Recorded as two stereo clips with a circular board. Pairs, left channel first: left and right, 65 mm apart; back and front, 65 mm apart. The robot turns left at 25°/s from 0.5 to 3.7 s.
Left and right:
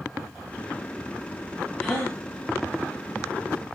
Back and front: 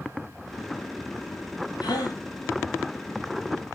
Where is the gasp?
170° left, 7.5 m; by 2.2 s 160° left, 7.5 m.